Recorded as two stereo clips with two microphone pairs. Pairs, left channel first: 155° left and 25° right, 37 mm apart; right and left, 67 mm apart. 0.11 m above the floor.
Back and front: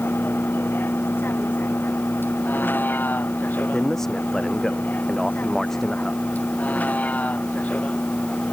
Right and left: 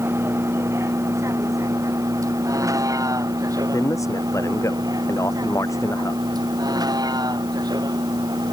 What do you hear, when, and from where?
0.0 s a vehicle: 145° left; by 8.5 s 105° left
3.7 s a man speaking: 125° right